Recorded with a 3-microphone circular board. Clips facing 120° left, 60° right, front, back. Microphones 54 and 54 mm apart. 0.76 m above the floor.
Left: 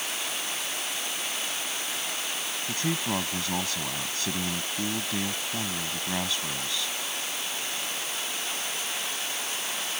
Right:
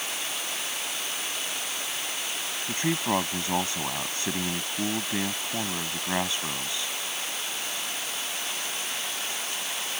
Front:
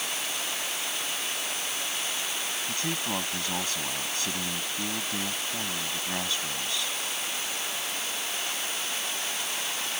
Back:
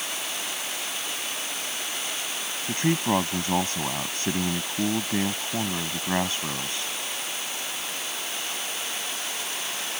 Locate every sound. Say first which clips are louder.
2.7 s a man speaking: right 4 dB, back 10 dB; 125° right